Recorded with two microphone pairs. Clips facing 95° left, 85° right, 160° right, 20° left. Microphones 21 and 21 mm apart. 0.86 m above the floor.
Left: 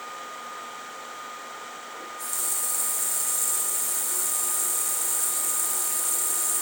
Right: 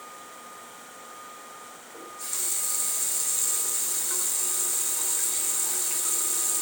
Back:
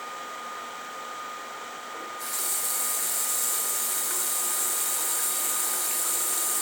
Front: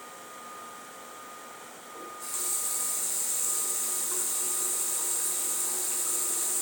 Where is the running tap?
155° right, 3.5 m.